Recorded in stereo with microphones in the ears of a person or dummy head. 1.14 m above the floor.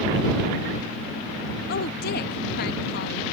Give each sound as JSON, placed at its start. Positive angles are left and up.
{"t": 1.7, "sound": "a woman speaking", "side_deg": 55}